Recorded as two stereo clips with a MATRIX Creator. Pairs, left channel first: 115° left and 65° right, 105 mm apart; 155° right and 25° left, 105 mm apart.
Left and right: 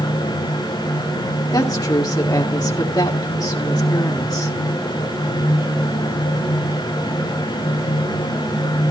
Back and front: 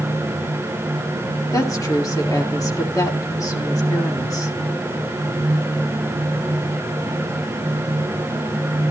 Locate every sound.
1.5 s a woman speaking: 155° left, 1.7 m